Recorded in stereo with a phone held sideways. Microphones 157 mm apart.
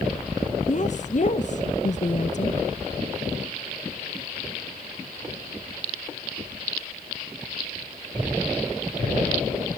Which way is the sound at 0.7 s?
50° left (ahead or behind).